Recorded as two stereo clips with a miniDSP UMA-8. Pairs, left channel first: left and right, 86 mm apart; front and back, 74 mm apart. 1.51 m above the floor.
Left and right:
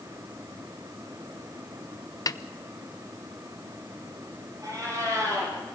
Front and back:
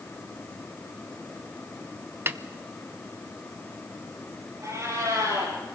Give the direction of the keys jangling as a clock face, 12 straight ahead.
I don't hear keys jangling.